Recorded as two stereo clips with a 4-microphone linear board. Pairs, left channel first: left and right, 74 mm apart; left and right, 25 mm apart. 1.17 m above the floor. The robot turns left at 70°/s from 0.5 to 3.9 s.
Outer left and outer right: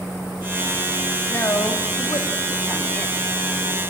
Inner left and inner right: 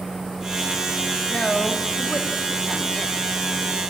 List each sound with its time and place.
1.3 s a woman speaking: 145° left, 2.5 m; by 3.2 s 15° left, 2.5 m